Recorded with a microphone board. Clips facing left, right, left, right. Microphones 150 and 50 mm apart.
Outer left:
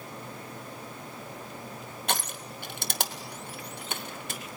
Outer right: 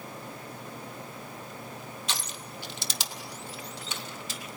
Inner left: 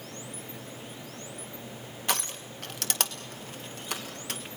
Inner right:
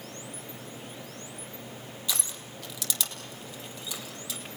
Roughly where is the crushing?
Left.